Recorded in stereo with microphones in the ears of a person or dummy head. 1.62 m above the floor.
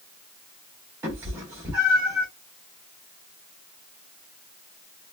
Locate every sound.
1.0 s a cat meowing: 10° right (ahead or behind), 1.3 m